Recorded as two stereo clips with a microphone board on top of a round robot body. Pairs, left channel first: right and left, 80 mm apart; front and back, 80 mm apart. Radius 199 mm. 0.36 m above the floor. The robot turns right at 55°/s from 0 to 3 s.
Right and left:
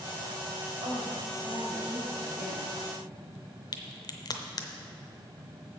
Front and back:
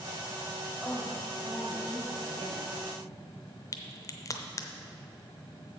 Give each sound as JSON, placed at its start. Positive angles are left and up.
{"t": 0.8, "sound": "a woman speaking", "azimuth_deg": 90, "distance_m": 3.5}
{"t": 3.7, "sound": "a crack", "azimuth_deg": -50, "distance_m": 0.7}